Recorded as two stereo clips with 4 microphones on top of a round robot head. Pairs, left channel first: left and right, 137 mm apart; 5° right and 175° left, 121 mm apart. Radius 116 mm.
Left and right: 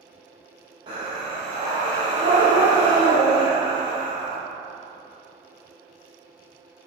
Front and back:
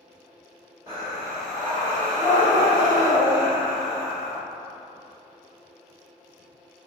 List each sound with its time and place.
0.9 s breathing: 120° right, 0.5 m